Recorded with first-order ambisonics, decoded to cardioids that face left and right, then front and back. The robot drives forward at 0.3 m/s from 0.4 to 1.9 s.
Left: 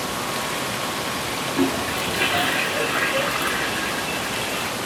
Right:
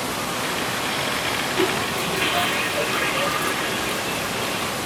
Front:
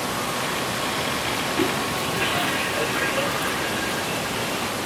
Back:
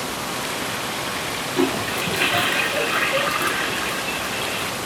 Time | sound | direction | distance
1.6 | a toilet flushing | 165° left | 1.6 m